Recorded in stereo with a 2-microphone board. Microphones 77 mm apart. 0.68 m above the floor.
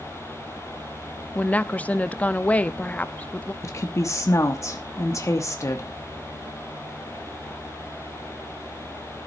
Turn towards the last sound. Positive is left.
turn(degrees=40)  # may be behind; listen again after turning